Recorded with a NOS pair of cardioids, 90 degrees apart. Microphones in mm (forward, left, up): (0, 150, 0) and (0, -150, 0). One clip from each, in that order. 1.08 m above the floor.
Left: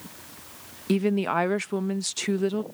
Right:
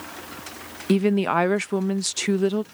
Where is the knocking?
I don't hear knocking.